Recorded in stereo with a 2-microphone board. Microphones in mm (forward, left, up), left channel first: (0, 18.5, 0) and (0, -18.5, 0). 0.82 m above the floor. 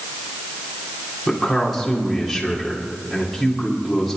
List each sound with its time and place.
1.3 s a man speaking: centre (ahead or behind), 3 m